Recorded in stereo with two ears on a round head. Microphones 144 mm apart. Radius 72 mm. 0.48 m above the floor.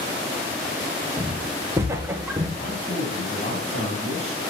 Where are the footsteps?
20° right (ahead or behind), 3 m; by 2.5 s 10° right (ahead or behind), 2.5 m.